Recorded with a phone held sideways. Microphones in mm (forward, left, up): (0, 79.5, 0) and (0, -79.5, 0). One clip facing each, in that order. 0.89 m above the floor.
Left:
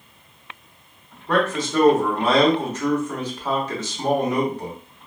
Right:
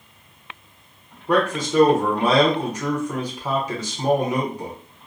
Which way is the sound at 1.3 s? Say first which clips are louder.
Right 1 dB; 10° right (ahead or behind).